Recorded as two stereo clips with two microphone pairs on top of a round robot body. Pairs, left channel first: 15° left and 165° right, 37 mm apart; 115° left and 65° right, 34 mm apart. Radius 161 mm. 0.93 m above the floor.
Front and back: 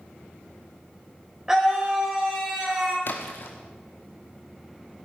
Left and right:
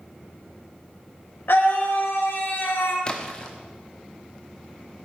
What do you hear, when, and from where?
1.5 s a scream: 120° left, 4.5 m
3.0 s a splash: 50° left, 1.1 m